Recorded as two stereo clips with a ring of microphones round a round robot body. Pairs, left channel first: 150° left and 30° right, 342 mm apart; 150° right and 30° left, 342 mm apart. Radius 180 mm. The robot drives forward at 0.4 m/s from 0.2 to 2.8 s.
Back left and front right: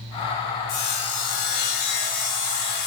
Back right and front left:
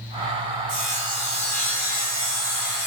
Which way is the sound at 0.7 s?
135° left.